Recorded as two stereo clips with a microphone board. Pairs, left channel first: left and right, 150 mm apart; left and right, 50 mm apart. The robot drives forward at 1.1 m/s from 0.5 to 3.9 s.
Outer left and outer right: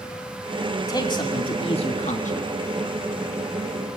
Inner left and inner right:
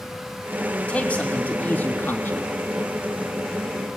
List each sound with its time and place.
0.9 s a man speaking: 25° left (ahead or behind), 2.5 m; by 2.5 s 60° left (ahead or behind), 1.4 m